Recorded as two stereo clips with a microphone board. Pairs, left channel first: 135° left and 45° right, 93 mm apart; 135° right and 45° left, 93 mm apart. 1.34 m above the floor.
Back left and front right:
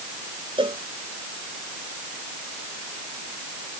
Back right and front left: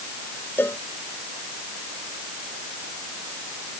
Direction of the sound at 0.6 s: 70° right.